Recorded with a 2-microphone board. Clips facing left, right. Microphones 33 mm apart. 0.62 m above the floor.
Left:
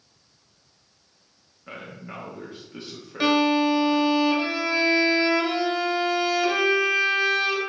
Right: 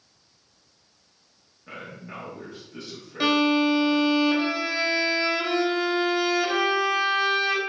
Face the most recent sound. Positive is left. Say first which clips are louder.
# left 1 dB
turn(degrees=5)  # may be behind; listen again after turning